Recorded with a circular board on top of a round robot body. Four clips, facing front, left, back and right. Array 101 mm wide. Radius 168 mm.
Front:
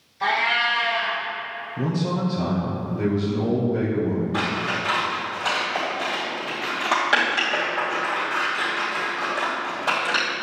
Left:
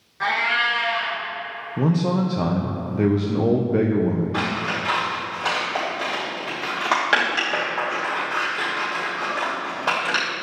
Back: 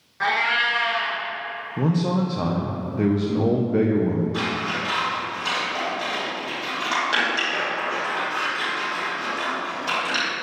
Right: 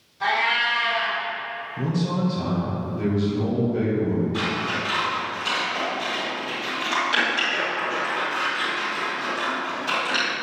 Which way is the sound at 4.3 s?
70° left.